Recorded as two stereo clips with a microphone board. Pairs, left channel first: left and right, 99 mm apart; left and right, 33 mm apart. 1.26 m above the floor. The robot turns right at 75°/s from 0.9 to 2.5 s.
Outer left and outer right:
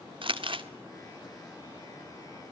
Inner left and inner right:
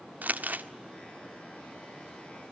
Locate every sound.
0.2 s crumpling: 60° right (ahead or behind), 1.5 m